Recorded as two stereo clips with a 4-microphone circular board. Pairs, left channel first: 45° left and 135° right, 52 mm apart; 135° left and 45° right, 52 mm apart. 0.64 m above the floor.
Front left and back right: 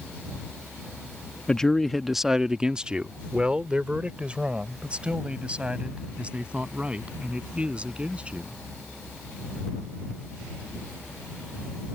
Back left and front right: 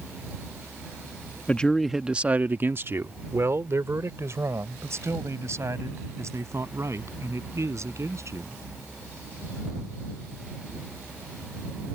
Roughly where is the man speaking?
Left.